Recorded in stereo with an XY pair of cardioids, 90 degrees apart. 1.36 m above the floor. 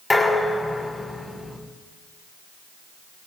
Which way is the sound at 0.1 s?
25° left.